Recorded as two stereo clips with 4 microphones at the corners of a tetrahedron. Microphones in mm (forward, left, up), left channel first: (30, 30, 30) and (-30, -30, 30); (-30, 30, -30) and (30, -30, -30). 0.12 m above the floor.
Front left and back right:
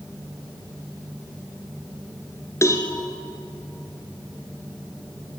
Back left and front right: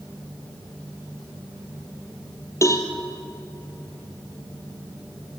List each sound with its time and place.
2.6 s a cowbell: 90° left, 2.5 m